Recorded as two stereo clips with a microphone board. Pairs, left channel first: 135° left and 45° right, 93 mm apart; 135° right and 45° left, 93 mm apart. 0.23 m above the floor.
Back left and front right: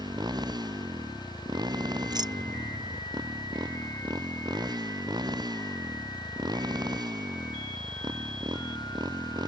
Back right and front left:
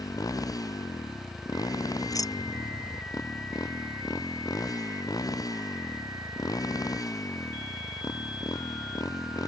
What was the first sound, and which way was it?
A motorcycle, 85° right.